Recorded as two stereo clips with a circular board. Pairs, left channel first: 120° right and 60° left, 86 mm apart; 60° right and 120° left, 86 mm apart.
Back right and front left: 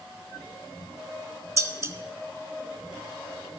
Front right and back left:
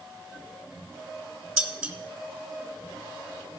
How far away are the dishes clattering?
About 0.7 m.